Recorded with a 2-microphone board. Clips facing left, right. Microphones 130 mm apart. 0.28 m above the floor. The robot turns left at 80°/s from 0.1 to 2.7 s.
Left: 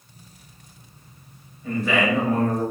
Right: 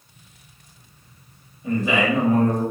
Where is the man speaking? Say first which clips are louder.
Right 1 dB; 20° right (ahead or behind), 0.9 m; by 2.6 s 5° right (ahead or behind), 0.9 m.